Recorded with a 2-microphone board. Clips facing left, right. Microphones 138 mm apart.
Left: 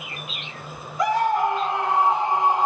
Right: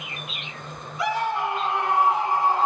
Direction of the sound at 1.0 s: 50° left (ahead or behind).